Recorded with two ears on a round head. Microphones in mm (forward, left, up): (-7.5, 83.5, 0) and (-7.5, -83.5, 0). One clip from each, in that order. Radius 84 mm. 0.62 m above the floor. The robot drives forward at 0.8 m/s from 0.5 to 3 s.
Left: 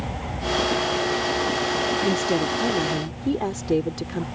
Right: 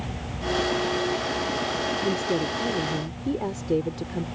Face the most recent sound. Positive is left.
turn(degrees=35)  # may be behind; listen again after turning